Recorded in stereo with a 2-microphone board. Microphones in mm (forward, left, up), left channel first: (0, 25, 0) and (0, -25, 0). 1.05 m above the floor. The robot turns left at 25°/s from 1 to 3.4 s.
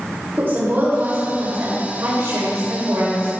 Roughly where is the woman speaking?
Ahead right.